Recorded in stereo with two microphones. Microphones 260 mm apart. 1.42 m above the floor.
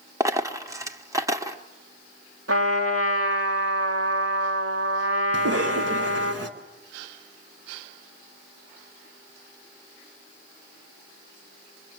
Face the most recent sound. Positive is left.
turn(degrees=-65)  # may be behind; listen again after turning